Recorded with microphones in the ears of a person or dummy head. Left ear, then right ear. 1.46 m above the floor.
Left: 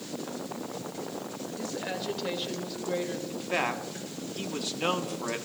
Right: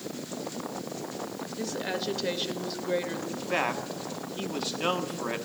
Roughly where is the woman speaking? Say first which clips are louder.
Right 3 dB; centre.